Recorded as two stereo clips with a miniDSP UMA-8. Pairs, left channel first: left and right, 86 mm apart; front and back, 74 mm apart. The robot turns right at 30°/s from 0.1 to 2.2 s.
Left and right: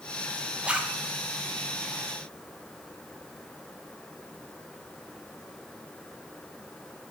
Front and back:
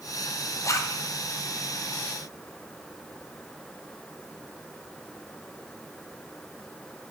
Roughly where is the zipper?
Ahead.